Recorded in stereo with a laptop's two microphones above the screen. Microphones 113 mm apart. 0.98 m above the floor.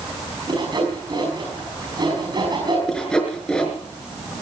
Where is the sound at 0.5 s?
40° right (ahead or behind), 5.5 m.